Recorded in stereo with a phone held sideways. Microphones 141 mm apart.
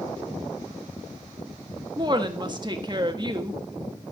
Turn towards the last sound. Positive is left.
turn(degrees=-30)  # may be behind; listen again after turning